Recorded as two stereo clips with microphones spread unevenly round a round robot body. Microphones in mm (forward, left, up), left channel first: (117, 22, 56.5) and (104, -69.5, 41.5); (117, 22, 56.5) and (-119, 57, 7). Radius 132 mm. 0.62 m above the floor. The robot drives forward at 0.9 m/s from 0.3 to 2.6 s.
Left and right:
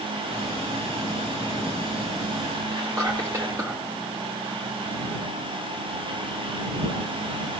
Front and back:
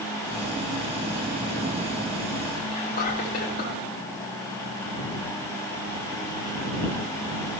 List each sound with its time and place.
2.7 s whispering: 70° right, 1.2 m